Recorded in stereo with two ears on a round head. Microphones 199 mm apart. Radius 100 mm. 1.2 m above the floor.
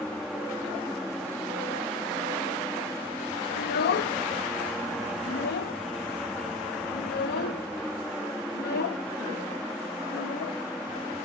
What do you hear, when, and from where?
0.0 s an aircraft: centre (ahead or behind)
3.6 s a child speaking: 50° left (ahead or behind)